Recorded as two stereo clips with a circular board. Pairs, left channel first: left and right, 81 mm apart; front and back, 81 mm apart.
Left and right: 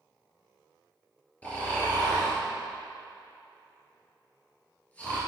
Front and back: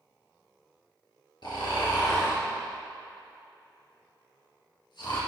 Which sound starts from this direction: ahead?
Snoring, at 1.4 s.